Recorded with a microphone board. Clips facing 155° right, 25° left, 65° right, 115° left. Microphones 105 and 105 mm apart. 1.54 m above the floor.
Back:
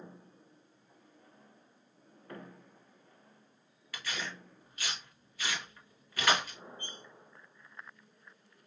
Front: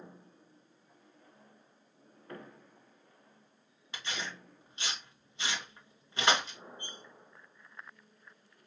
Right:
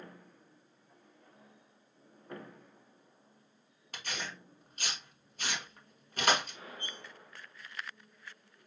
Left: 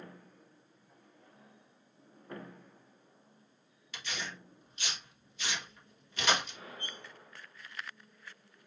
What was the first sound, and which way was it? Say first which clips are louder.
Tearing paper: even, even; 40° right.